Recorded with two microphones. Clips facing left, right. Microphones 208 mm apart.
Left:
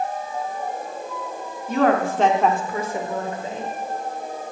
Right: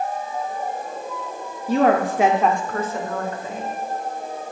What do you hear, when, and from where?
1.7 s a woman speaking: 35° right (ahead or behind), 0.9 m; by 3.7 s 25° left (ahead or behind), 1.9 m